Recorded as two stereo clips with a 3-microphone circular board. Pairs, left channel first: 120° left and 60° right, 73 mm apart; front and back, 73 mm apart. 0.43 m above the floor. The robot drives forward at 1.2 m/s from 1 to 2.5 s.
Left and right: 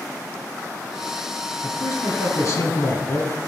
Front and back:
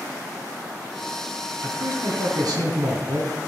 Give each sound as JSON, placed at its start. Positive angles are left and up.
{"t": 1.6, "sound": "a man speaking", "azimuth_deg": 145, "distance_m": 2.0}